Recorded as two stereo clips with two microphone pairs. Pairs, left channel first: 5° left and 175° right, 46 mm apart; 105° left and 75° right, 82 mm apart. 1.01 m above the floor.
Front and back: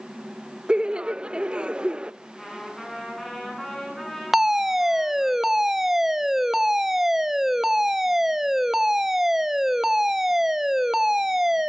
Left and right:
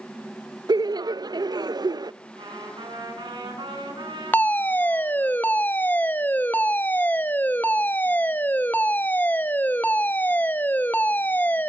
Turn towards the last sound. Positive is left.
turn(degrees=115)